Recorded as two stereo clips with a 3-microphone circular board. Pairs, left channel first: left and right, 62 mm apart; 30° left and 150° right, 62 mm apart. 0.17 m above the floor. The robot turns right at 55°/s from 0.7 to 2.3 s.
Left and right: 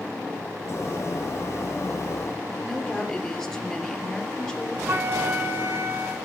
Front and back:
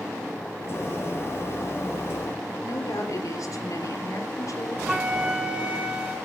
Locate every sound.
2.6 s a woman speaking: 10° left, 3.5 m
4.9 s a flute: 85° right, 1.9 m